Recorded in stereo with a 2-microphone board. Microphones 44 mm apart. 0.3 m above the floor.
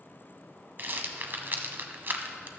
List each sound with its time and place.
0.8 s a rattle: 50° right (ahead or behind), 0.9 m